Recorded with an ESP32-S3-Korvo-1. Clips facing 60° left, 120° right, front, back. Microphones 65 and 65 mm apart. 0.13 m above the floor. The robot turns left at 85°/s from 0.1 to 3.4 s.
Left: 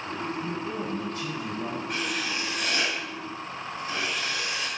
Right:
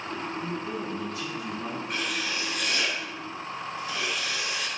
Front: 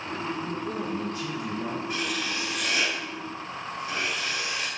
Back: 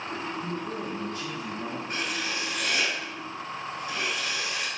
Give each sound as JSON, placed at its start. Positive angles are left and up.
{"t": 0.4, "sound": "a man speaking", "azimuth_deg": 145, "distance_m": 1.8}
{"t": 1.9, "sound": "writing", "azimuth_deg": 150, "distance_m": 1.3}